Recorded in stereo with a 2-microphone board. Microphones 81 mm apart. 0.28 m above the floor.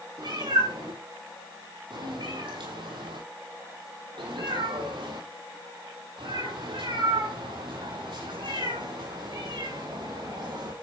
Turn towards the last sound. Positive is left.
turn(degrees=-65)  # may be behind; listen again after turning